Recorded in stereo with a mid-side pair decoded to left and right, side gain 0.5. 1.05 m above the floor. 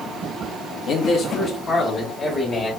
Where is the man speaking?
65° left, 0.8 m; by 2.7 s 30° left, 1.7 m.